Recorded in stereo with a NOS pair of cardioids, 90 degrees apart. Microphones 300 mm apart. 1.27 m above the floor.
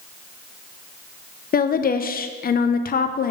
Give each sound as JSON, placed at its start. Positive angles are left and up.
{"t": 1.5, "sound": "a woman speaking", "azimuth_deg": 30, "distance_m": 0.5}